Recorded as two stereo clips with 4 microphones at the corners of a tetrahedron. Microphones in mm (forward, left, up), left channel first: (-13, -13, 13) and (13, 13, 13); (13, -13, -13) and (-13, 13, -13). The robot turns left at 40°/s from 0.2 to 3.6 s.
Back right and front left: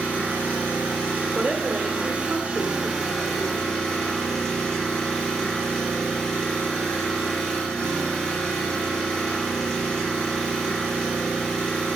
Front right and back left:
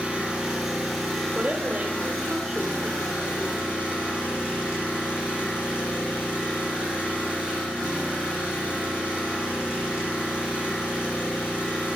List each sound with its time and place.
0.0 s an engine running: 75° left, 5.5 m; by 12.0 s 60° right, 5.5 m
1.4 s a woman speaking: 80° left, 1.1 m; by 3.7 s 10° right, 1.1 m